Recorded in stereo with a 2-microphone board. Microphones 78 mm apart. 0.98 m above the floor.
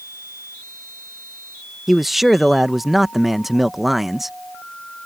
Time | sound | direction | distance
1.9 | a man speaking | centre (ahead or behind) | ?